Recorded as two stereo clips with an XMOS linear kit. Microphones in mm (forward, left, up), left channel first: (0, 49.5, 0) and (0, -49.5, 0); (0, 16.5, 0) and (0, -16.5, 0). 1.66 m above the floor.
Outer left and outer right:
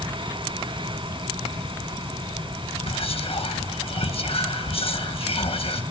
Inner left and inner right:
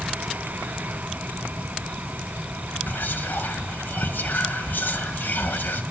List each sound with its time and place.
2.9 s whispering: 75° left (ahead or behind), 1.7 m